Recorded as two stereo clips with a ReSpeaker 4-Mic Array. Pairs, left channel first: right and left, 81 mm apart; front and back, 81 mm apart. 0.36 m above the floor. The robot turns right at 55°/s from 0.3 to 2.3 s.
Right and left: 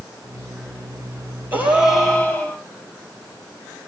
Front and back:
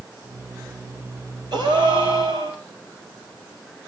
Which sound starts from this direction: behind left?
A gasp, at 1.5 s.